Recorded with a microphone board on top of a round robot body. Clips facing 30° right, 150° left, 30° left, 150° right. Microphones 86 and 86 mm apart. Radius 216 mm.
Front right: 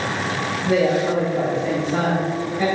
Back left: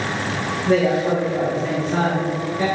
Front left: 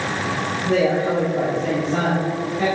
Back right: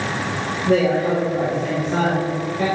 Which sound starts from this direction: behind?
A woman speaking, at 0.7 s.